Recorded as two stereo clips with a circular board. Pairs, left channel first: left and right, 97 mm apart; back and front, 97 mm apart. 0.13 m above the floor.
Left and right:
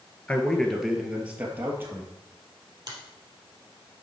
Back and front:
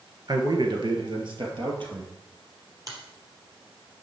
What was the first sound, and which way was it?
A man speaking, 20° left.